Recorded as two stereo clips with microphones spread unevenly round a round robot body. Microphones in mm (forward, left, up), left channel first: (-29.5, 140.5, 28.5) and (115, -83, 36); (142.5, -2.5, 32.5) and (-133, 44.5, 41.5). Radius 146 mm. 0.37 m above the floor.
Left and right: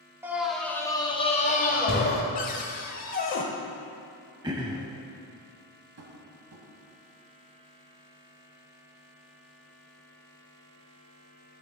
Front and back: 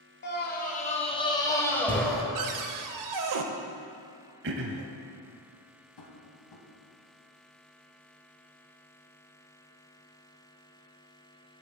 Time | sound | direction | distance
0.2 | a scream | 25° left | 1.4 m
2.4 | a cupboard door | 175° right | 0.7 m
4.4 | throat clearing | 135° right | 0.6 m
6.0 | tapping | 20° right | 1.6 m